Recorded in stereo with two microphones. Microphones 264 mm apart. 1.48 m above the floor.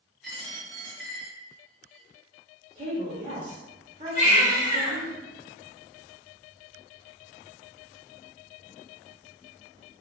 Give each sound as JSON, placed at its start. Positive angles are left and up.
{"t": 0.2, "sound": "a dropped coin", "side_deg": 0, "distance_m": 0.9}
{"t": 2.8, "sound": "a woman speaking", "side_deg": -25, "distance_m": 0.8}
{"t": 4.2, "sound": "a baby crying", "side_deg": 30, "distance_m": 1.0}